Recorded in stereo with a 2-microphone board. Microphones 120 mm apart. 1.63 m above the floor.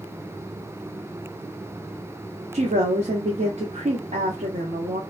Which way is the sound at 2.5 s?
75° right (ahead or behind).